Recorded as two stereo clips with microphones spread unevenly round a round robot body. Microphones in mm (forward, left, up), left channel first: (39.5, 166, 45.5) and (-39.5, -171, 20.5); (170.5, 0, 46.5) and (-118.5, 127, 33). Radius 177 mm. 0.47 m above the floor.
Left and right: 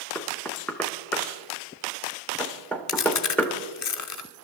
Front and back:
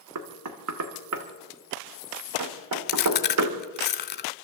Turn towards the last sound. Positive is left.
turn(degrees=35)